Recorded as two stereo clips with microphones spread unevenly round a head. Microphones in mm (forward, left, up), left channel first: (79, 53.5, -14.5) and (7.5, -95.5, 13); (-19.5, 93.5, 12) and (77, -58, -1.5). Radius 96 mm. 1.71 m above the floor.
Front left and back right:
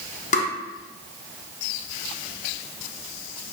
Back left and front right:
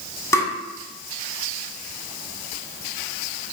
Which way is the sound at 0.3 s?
70° left.